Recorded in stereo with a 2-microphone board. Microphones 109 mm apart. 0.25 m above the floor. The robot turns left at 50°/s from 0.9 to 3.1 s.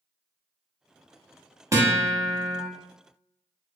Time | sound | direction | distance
1.7 | a guitar | 45° right | 0.7 m